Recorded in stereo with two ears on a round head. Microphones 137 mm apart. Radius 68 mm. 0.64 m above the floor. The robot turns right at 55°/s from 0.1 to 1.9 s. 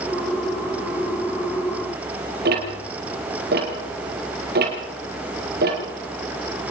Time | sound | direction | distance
2.5 | ticking | 65° right (ahead or behind) | 5 m